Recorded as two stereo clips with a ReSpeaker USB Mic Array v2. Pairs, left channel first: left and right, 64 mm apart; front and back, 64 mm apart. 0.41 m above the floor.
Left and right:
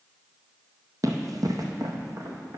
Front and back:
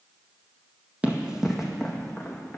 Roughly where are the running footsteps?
Right.